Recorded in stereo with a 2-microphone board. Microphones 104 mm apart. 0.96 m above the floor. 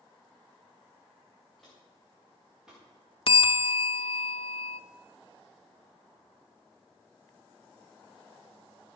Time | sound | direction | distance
1.6 | footsteps | centre (ahead or behind) | 6.5 m
3.3 | a bell | 60° left (ahead or behind) | 0.6 m